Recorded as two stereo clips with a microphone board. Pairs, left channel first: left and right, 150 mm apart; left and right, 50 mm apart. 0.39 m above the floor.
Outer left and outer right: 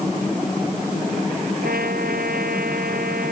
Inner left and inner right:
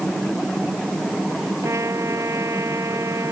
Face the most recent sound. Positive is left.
turn(degrees=-80)